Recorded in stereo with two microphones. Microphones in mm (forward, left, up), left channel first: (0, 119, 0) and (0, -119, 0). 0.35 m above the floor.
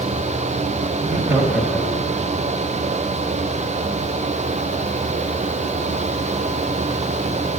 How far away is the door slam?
I don't hear a door slam.